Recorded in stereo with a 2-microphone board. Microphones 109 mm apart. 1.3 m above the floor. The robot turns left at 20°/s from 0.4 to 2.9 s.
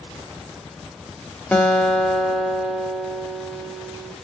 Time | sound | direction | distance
1.5 | a guitar | 10° left (ahead or behind) | 0.7 m